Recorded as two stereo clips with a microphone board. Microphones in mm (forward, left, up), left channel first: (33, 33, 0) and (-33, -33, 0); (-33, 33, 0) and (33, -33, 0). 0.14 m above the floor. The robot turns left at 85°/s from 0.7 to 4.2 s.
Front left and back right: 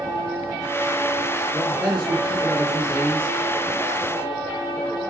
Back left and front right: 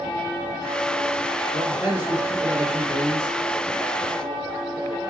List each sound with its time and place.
1.5 s a man speaking: 10° right, 1.7 m; by 3.4 s 165° right, 1.7 m